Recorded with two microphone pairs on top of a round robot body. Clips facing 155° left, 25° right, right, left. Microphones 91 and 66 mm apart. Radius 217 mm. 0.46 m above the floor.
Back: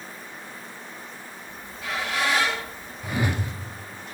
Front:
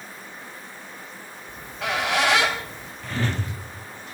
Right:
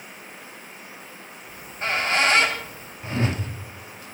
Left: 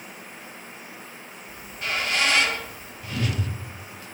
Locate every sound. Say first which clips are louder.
1.5 s a squeak: front 5 dB, right 3 dB; 35° right, 2.5 m
3.0 s a whoosh: back 1 dB, right 3 dB; 130° right, 1.6 m